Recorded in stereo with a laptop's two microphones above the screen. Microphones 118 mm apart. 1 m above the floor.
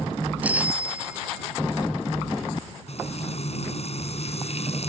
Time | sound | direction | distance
0.4 | a bicycle bell | 15° right (ahead or behind) | ?
2.9 | frying | 60° left (ahead or behind) | ?